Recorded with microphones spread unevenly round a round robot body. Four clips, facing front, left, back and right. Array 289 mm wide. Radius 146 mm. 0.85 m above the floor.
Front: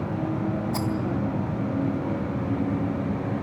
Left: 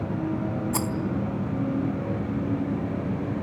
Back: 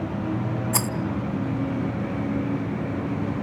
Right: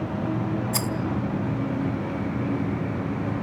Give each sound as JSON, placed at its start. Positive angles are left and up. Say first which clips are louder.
{"t": 0.7, "sound": "a rattle", "louder": "left 1 dB, even", "azimuth_deg": 160, "distance_m": 0.7}